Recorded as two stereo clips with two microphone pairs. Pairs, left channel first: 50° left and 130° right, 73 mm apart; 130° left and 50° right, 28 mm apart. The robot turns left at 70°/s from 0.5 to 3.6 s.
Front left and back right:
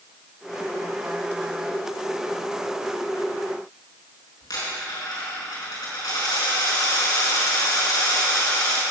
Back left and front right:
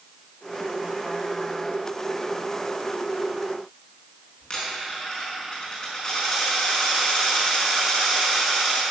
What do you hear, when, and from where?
4.4 s a dropped coin: 55° left, 5 m